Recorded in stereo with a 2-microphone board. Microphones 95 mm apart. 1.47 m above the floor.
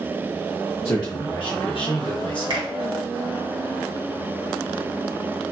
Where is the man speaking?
40° left (ahead or behind), 0.6 m; by 2.7 s 50° left (ahead or behind), 0.9 m.